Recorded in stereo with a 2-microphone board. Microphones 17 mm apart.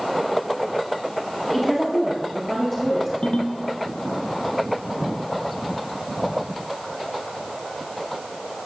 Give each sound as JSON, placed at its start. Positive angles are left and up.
{"t": 1.5, "sound": "a woman speaking", "side_deg": 10, "distance_m": 1.9}
{"t": 3.2, "sound": "a ringtone", "side_deg": 70, "distance_m": 1.2}